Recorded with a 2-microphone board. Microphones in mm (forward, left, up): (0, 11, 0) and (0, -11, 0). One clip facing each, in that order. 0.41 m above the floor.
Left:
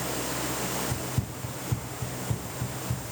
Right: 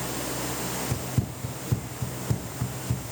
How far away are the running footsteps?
About 0.6 m.